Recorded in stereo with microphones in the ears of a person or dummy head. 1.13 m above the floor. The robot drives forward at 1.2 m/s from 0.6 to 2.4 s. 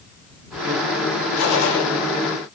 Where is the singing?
No singing in this recording.